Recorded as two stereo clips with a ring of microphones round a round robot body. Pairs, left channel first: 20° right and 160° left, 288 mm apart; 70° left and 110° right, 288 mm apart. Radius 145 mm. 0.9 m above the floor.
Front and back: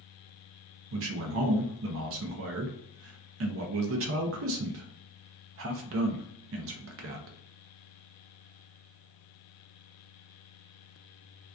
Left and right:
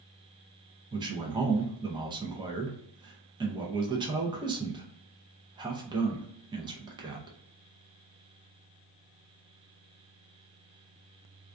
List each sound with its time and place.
0.9 s a man speaking: 175° left, 0.5 m